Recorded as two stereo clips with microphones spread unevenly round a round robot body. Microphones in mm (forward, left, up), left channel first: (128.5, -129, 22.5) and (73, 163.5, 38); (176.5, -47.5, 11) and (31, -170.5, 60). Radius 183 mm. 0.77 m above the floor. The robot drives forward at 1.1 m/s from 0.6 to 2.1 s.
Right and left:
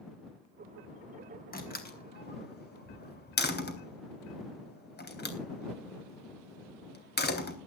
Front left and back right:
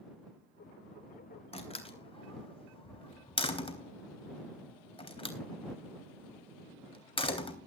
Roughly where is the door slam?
Ahead.